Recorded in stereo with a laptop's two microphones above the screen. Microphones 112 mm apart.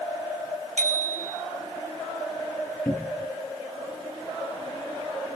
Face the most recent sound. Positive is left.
turn(degrees=15)  # may be behind; listen again after turning